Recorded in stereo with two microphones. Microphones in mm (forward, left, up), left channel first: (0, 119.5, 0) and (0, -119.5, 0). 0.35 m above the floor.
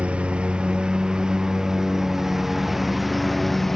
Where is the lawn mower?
5° right (ahead or behind); by 3.8 s centre (ahead or behind).